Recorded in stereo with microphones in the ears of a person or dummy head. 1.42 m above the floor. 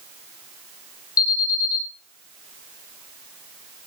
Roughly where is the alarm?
Left.